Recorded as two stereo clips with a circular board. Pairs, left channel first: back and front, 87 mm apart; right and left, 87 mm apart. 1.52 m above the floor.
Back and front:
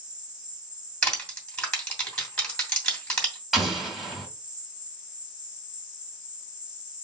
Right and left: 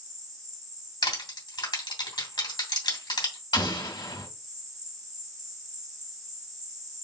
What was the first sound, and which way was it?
An insect, 40° left.